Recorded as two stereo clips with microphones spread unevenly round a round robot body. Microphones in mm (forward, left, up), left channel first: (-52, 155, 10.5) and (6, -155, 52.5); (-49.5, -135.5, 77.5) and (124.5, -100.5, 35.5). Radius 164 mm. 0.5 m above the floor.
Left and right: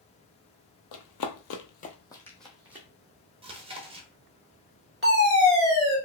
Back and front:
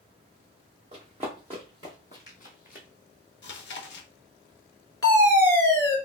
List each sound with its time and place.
0.9 s running footsteps: 85° left, 0.7 m; by 2.9 s 160° right, 1.1 m
3.4 s chewing: 155° right, 0.6 m
5.0 s a fire alarm: 95° right, 1.7 m